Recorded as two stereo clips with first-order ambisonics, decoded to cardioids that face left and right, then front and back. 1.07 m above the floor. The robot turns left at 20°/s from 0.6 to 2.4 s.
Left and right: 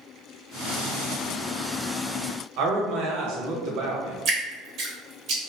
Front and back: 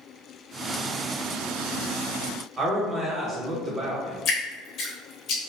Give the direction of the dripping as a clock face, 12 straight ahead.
2 o'clock.